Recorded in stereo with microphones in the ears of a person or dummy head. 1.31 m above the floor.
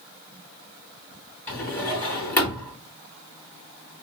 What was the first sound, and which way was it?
A drawer, 10° left (ahead or behind).